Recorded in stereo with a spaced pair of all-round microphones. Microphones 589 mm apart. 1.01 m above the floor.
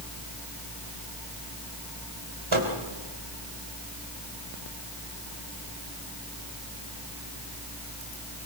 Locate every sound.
2.5 s a microwave: 55° right (ahead or behind), 3 m